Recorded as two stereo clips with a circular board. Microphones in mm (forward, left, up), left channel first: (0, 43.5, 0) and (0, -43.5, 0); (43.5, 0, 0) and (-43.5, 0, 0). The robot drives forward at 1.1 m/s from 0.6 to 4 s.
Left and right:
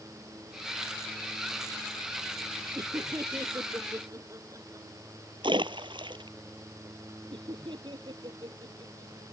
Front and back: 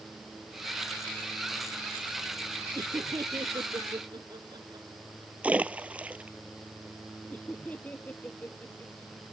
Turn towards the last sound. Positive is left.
turn(degrees=-70)